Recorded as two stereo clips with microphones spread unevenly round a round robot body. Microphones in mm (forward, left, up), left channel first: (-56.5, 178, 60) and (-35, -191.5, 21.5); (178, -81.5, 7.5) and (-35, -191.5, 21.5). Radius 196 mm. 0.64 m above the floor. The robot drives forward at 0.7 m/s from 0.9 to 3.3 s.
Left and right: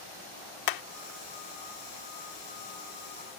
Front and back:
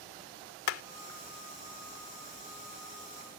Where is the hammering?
55° left.